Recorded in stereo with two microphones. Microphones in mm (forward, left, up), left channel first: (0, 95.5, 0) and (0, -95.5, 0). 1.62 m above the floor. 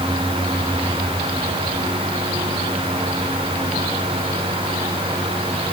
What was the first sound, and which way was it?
Only background noise.